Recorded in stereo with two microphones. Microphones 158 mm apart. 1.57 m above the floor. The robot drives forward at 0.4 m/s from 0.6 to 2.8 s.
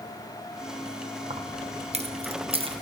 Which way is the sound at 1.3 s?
40° right (ahead or behind).